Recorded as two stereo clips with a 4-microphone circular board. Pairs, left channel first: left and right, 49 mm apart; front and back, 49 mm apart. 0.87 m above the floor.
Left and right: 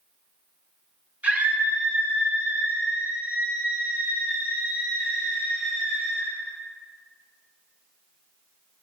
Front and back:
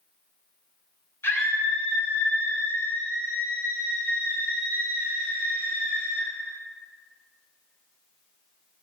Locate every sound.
1.2 s a scream: 35° right, 3 m; by 6.3 s 40° right, 7.5 m